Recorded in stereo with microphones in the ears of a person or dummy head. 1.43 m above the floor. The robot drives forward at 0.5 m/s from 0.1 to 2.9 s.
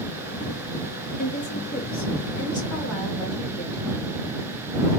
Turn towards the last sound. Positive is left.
turn(degrees=20)  # may be behind; listen again after turning